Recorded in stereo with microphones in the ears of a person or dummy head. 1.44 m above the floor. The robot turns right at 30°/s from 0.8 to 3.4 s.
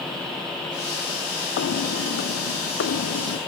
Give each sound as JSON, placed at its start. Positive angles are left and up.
{"t": 1.6, "sound": "footsteps", "side_deg": 60}